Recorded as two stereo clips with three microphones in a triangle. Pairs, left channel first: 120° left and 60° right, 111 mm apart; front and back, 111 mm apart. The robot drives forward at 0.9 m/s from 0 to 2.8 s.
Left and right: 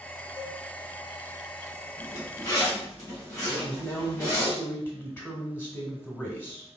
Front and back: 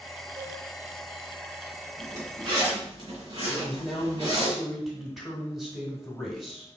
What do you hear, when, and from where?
0.4 s a cowbell: 155° left, 1.1 m; by 0.6 s 160° left, 1.3 m
2.0 s a zipper: 160° left, 1.9 m; by 4.5 s 170° left, 2.5 m
3.5 s a man speaking: 95° left, 1.4 m